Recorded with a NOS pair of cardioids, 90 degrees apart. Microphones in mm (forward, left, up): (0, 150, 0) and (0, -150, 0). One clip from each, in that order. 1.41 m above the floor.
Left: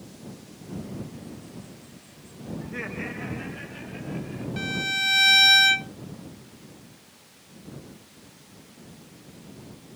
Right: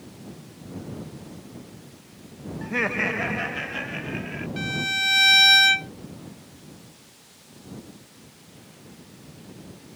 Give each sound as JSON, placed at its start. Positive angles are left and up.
{"t": 2.6, "sound": "laughter", "azimuth_deg": -60}
{"t": 4.6, "sound": "a violin", "azimuth_deg": 0}